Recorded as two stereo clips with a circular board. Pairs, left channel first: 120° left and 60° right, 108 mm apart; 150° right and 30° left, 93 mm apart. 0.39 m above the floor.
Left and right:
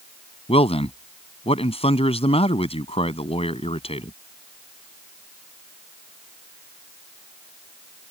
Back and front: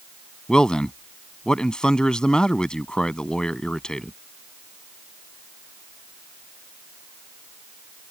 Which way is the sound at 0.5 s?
130° left.